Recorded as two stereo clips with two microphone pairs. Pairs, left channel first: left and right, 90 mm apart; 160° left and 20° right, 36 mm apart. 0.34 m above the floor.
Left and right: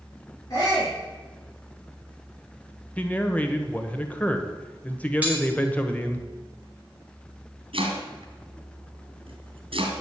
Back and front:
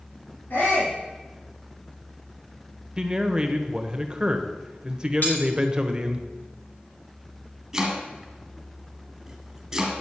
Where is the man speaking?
30° left, 1.3 m.